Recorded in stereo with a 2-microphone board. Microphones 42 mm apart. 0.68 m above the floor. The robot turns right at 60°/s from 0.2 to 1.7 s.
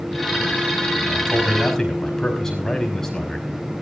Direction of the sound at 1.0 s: 25° right.